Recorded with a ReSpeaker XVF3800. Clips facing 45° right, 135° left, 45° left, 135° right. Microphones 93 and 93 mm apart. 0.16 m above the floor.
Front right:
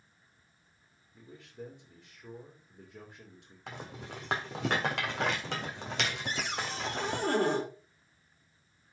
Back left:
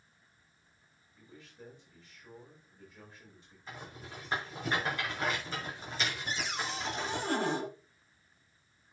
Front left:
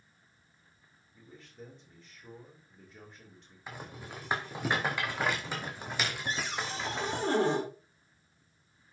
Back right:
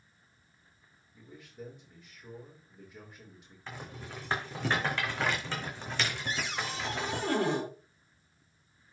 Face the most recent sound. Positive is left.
turn(degrees=-15)